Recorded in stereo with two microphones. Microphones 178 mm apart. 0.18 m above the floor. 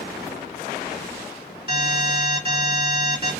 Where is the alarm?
30° right (ahead or behind), 3 m.